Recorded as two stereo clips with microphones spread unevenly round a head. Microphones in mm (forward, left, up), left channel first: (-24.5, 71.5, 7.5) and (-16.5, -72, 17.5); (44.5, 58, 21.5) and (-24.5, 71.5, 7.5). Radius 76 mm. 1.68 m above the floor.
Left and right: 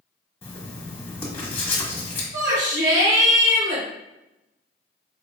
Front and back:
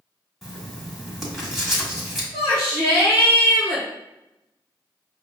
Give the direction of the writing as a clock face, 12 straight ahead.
11 o'clock.